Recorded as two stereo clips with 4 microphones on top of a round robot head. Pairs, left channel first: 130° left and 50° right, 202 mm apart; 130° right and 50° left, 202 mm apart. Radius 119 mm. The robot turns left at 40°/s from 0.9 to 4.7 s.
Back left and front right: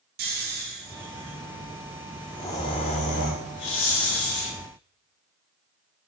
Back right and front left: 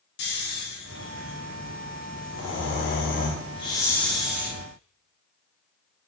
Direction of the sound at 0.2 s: 90° right.